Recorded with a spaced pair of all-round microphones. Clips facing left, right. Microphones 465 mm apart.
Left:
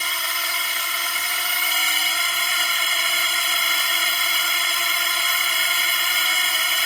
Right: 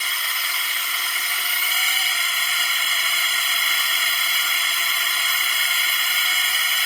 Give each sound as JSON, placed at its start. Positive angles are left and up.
{"t": 0.0, "sound": "a drone", "side_deg": 65}